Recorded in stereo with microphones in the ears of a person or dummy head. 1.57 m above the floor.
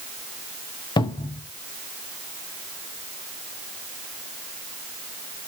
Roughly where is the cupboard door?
Left.